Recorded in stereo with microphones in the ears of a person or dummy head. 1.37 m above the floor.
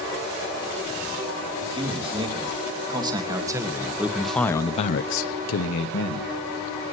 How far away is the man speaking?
About 3.5 m.